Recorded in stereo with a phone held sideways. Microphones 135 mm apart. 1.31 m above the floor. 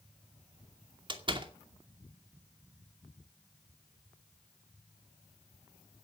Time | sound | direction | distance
1.1 | a door slam | 35° right (ahead or behind) | 2.5 m